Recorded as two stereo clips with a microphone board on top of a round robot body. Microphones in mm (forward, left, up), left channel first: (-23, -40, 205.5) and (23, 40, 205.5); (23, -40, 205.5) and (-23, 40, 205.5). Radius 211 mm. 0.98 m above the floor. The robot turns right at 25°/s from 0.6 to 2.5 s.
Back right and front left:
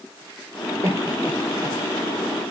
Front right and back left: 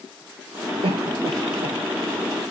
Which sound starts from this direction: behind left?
A cough, at 0.8 s.